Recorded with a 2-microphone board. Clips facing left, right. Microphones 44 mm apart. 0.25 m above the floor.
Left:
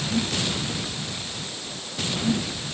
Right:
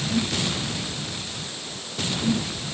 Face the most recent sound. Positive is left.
No sound to turn to.